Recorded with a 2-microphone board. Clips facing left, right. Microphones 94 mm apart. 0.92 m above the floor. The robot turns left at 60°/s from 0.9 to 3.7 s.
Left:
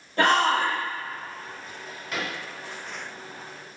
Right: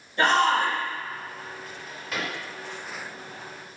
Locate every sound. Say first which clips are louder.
0.2 s a shout: even; 65° left (ahead or behind), 1.6 m
1.6 s a drawer: even; 25° left (ahead or behind), 2.0 m; by 2.3 s 15° right (ahead or behind), 2.0 m